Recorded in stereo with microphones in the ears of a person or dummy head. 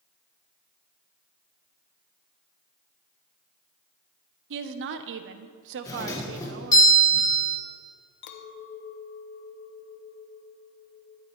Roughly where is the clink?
Left.